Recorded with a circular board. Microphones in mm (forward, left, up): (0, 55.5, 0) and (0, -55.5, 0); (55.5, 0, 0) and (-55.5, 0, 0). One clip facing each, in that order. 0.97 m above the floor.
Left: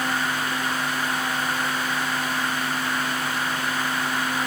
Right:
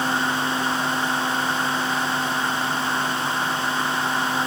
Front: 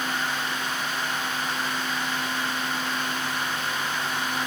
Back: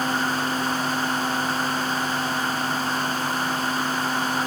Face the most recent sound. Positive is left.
No sound to turn to.